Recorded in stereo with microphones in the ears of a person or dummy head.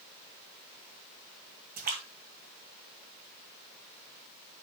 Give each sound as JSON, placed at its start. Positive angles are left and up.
{"t": 1.8, "sound": "a splash", "side_deg": -50, "distance_m": 2.5}